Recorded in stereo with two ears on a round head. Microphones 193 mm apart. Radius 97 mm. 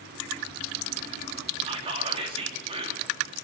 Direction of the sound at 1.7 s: 30° right (ahead or behind).